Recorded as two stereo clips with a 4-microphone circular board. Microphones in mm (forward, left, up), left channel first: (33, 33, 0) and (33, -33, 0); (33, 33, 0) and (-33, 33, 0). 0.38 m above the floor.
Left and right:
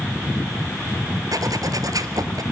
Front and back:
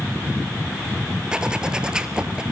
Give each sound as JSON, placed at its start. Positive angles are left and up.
{"t": 1.3, "sound": "a zipper", "azimuth_deg": -105, "distance_m": 1.2}